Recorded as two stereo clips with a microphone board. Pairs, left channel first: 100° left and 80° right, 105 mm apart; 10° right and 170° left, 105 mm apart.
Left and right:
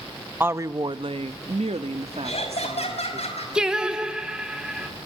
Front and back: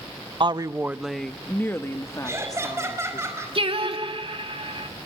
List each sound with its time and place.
0.4 s a woman speaking: 150° right, 0.7 m; by 3.2 s 60° right, 2.5 m
2.2 s laughter: 105° left, 5 m
3.5 s singing: 160° right, 2 m